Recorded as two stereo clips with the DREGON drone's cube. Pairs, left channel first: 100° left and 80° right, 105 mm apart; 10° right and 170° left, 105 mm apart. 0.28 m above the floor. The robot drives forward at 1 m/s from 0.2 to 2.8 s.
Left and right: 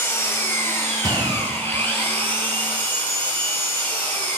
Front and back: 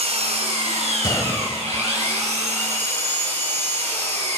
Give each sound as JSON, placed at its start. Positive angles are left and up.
{"t": 0.0, "sound": "an engine running", "azimuth_deg": 165, "distance_m": 3.5}
{"t": 1.0, "sound": "a gunshot", "azimuth_deg": -50, "distance_m": 0.9}